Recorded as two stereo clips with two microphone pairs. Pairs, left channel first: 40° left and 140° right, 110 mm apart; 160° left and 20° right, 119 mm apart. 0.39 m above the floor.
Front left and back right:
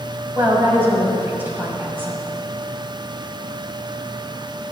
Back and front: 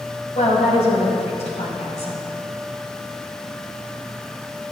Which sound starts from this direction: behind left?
A woman speaking, at 0.3 s.